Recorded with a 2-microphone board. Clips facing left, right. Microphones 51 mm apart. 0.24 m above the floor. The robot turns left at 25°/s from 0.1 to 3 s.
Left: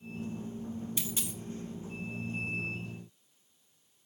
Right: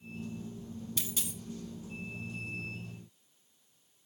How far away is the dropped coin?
About 0.6 m.